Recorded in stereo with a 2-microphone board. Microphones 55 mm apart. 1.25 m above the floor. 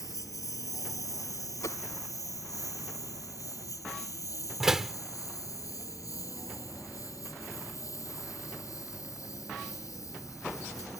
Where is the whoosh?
70° left (ahead or behind).